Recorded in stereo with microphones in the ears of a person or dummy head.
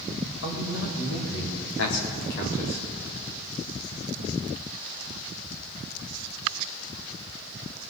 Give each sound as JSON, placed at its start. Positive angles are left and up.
{"t": 0.4, "sound": "a man speaking", "side_deg": 85, "distance_m": 2.5}